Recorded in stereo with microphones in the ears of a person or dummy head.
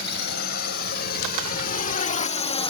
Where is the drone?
55° left (ahead or behind); by 2.7 s 30° left (ahead or behind).